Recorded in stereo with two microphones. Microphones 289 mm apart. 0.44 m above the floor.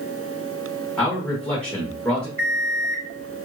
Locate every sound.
1.0 s a man speaking: 5° left (ahead or behind), 1.5 m
2.4 s an alarm clock: 30° left (ahead or behind), 2 m